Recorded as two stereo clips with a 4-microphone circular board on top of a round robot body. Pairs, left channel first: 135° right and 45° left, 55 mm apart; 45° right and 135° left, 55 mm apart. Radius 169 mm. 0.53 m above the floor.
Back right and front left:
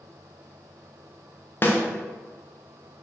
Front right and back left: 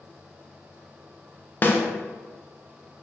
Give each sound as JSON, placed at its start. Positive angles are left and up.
{"t": 1.6, "sound": "a snare drum", "azimuth_deg": -90, "distance_m": 0.7}